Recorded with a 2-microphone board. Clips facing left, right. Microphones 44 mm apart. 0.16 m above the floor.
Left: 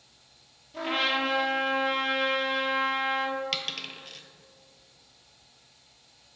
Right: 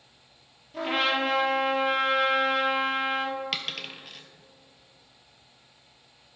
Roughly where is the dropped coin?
Centre.